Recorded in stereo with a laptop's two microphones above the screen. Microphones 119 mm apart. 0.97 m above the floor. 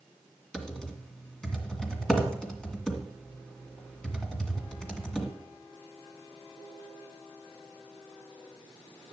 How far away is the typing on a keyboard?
About 1.9 m.